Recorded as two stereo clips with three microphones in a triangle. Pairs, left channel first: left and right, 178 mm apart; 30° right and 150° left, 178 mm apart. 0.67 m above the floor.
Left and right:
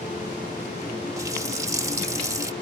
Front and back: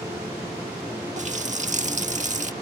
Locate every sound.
1.2 s a running tap: 160° right